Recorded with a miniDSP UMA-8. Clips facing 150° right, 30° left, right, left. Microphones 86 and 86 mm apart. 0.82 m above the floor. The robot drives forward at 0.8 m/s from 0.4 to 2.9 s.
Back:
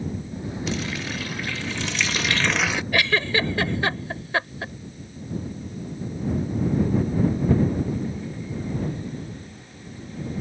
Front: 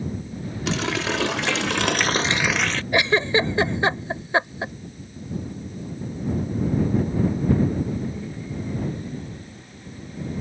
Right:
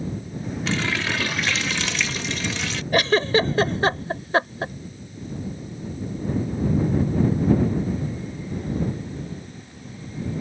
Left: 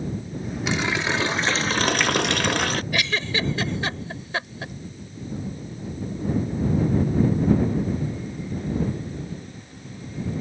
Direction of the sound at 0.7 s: 20° left.